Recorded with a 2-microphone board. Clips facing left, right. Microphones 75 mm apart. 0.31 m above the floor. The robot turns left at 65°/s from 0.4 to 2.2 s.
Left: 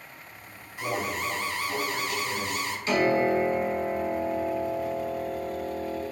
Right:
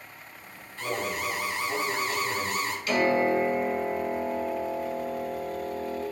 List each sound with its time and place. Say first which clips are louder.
0.8 s an alarm: left 1 dB; 20° left, 0.7 m; by 2.8 s 70° right, 0.7 m
2.9 s a piano: left 1 dB; 30° left (ahead or behind), 1.3 m